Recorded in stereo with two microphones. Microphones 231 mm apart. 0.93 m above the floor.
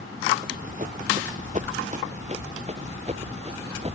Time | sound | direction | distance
0.4 | running footsteps | 35° right (ahead or behind) | ?